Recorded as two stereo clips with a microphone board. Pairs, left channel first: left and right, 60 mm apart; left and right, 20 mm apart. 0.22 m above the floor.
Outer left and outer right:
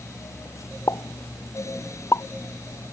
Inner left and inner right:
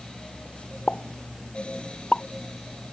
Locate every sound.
0.9 s a pop: 50° left (ahead or behind)